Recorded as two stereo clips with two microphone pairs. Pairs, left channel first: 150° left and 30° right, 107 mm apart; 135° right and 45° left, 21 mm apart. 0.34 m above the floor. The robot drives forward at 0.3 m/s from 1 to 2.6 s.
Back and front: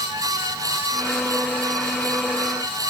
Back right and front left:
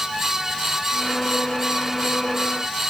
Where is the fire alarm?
No fire alarm in this recording.